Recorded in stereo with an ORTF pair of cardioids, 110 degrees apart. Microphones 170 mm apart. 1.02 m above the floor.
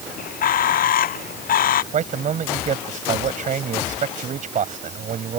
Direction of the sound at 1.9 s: 45° right.